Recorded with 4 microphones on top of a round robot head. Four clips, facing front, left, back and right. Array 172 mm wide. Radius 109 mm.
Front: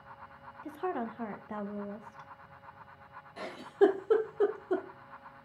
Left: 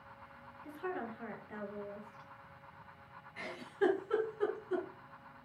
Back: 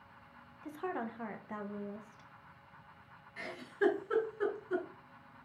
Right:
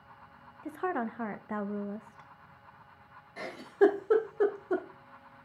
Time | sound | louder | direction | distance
0.6 | a woman speaking | right 8 dB, front 4 dB | 70° right | 0.9 m
3.4 | a giggle | right 9 dB, front 8 dB | 50° right | 0.8 m